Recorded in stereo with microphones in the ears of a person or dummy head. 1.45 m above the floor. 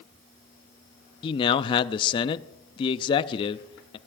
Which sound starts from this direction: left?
A man speaking, at 1.2 s.